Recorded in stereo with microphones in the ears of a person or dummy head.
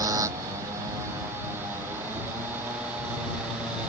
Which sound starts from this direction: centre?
A motorcycle, at 0.0 s.